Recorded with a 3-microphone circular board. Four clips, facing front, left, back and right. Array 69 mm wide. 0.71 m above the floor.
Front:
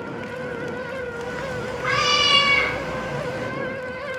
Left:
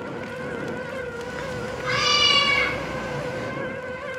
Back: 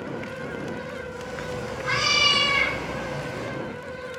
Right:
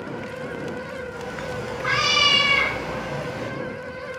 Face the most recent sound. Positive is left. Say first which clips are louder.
# even, front 4 dB
turn(degrees=-35)